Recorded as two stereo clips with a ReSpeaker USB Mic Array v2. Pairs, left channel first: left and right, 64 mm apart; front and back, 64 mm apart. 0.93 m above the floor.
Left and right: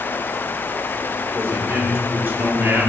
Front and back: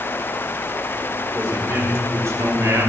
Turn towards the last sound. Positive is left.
turn(degrees=-150)